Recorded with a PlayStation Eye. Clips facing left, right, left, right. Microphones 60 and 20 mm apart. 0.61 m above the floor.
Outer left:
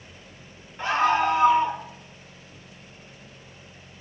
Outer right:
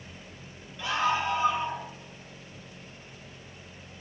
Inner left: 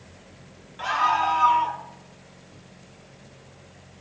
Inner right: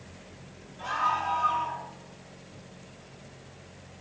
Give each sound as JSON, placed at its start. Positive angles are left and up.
{"t": 0.8, "sound": "a scream", "side_deg": 40, "distance_m": 1.6}